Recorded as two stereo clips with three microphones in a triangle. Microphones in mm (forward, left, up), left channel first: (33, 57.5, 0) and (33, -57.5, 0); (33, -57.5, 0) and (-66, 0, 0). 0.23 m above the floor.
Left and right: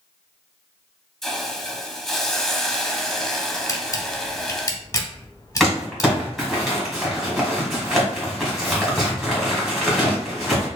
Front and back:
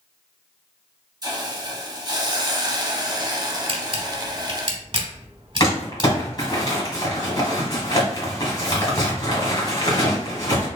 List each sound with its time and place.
1.2 s a hiss: 175° left, 0.6 m
3.7 s a camera shutter: 140° left, 0.7 m
5.6 s crumpling: 5° left, 1.6 m